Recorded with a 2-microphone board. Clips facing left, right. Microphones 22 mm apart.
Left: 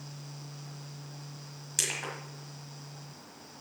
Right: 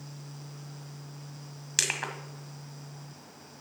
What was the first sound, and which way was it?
Crushing, 35° right (ahead or behind).